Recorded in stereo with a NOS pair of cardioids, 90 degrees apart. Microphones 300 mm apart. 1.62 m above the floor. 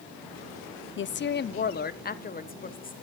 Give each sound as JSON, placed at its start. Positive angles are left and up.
{"t": 1.0, "sound": "a woman speaking", "azimuth_deg": 40, "distance_m": 0.5}